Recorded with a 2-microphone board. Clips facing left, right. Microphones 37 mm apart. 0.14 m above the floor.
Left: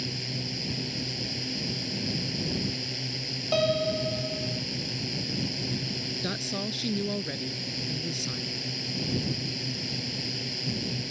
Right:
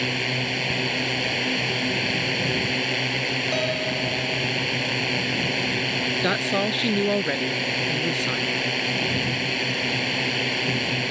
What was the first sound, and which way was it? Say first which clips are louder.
A drone: right 11 dB; 60° right (ahead or behind).